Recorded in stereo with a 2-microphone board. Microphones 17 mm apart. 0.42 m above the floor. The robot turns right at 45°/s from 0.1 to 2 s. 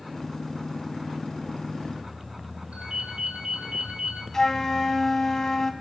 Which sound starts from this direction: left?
A flute, at 4.3 s.